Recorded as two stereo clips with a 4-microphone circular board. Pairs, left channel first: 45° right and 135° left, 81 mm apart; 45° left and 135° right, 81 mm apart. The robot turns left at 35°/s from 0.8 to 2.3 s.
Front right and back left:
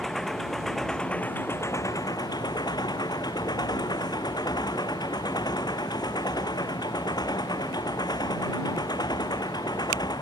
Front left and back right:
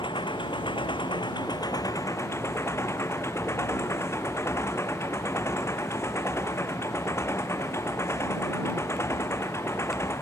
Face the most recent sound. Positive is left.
turn(degrees=-10)